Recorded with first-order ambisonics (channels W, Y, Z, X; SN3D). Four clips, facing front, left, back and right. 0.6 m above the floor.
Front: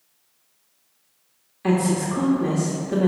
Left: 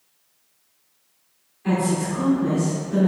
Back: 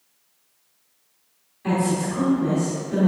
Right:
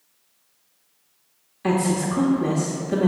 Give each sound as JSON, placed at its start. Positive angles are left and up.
{"t": 1.6, "sound": "a woman speaking", "azimuth_deg": -55, "distance_m": 1.2}